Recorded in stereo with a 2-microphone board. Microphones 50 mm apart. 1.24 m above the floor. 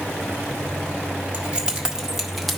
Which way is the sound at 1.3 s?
25° right (ahead or behind).